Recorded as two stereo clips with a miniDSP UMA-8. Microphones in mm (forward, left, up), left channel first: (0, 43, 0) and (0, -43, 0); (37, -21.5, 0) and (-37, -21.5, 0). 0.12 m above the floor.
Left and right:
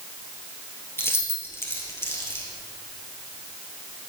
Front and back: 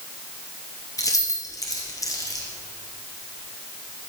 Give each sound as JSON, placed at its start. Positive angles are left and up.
{"t": 1.0, "sound": "keys jangling", "azimuth_deg": 30, "distance_m": 1.8}